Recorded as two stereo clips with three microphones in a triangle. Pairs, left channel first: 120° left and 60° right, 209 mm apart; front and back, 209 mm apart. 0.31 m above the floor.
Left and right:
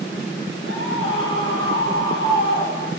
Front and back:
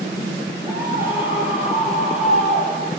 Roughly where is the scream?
Left.